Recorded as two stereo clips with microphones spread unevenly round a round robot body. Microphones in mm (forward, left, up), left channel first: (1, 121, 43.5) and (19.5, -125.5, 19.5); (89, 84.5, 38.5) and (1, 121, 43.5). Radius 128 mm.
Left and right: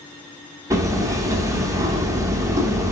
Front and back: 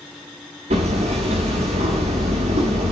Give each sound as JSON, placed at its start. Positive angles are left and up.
{"t": 0.7, "sound": "hammering", "azimuth_deg": -165, "distance_m": 1.5}